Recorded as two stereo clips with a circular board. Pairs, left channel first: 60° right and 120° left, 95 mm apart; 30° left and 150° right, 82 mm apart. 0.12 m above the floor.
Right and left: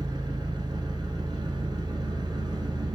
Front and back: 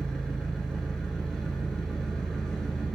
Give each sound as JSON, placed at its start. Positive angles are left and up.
{"t": 0.0, "sound": "an engine running", "azimuth_deg": 110, "distance_m": 0.7}